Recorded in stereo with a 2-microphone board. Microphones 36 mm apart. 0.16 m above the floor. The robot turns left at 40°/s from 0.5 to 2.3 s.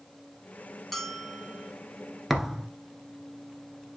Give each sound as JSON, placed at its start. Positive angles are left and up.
{"t": 0.9, "sound": "a bell", "azimuth_deg": 5, "distance_m": 1.1}
{"t": 2.3, "sound": "a thud", "side_deg": 0, "distance_m": 1.2}